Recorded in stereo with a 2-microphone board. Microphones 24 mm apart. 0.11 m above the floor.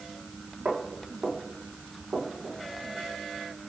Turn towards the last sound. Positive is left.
turn(degrees=-80)